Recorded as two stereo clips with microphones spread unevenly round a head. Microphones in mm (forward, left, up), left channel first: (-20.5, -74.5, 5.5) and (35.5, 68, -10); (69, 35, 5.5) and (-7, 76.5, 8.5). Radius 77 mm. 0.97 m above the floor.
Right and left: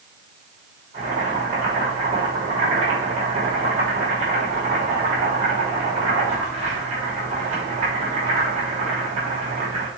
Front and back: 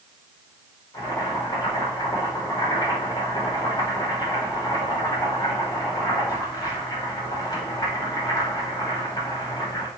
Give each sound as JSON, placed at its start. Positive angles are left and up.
{"t": 0.9, "sound": "boiling", "azimuth_deg": 20, "distance_m": 3.0}